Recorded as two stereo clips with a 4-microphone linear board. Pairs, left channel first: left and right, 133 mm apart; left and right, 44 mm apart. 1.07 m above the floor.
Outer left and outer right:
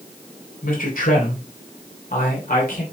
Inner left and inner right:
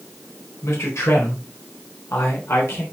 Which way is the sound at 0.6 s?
75° left (ahead or behind).